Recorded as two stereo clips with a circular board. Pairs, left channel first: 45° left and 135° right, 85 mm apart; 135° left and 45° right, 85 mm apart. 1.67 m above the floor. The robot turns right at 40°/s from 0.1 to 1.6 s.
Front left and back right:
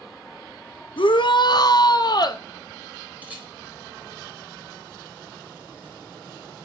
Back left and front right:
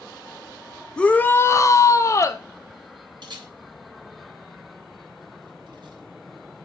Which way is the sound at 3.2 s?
65° right.